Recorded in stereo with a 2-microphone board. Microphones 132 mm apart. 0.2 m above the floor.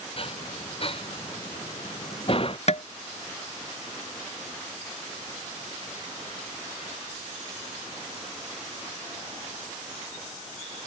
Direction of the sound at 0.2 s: 45° left (ahead or behind).